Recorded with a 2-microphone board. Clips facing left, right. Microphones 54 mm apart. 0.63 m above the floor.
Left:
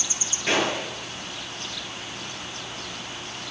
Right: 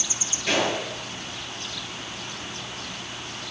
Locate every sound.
0.5 s a gunshot: 20° left (ahead or behind), 7 m